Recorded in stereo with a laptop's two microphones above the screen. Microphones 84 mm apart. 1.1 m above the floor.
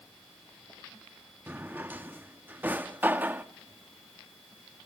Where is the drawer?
25° right (ahead or behind), 0.6 m.